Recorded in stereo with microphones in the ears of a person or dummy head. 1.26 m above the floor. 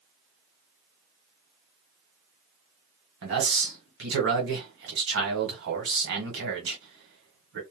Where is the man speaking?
60° right (ahead or behind), 1.2 m.